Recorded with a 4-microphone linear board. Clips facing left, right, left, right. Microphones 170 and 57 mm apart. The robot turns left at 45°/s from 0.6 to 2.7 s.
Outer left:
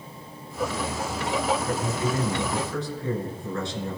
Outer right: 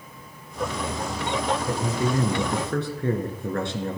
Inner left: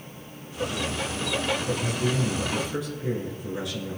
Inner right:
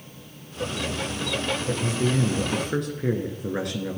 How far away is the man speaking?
About 2.5 m.